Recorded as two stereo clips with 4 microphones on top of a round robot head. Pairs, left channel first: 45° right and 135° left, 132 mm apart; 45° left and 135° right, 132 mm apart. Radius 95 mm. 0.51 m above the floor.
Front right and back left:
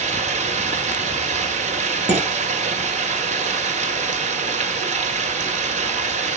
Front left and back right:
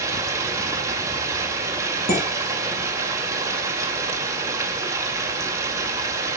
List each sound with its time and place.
0.0 s running water: 160° left, 2 m
2.1 s dishes clattering: 50° left, 6.5 m